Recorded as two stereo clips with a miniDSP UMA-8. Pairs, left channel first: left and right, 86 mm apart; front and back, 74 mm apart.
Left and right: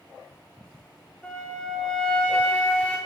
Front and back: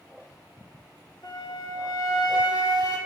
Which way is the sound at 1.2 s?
20° left.